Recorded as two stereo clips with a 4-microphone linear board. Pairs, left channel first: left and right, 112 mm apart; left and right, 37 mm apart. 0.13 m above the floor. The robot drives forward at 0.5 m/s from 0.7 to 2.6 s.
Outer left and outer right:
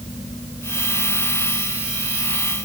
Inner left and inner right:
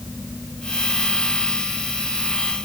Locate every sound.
Only background noise.